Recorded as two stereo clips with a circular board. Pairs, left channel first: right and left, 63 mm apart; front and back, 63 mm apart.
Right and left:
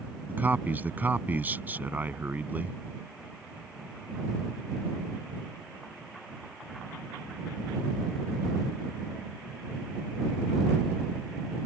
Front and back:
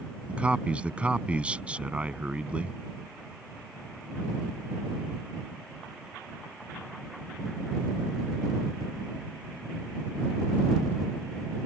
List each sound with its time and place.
0.3 s a man speaking: 125° left